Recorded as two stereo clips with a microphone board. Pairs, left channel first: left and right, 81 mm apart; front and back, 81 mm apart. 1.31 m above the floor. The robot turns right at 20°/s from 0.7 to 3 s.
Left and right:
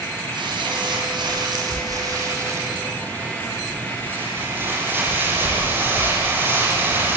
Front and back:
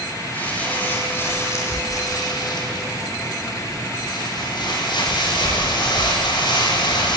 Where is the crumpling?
70° right, 9 m; by 7.2 s 25° right, 9 m.